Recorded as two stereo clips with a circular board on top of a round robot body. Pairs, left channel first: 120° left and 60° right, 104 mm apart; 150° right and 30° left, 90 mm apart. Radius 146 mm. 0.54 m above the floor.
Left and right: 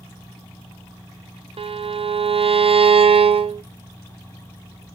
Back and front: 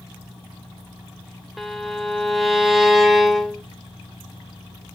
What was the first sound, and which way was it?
A violin, 60° right.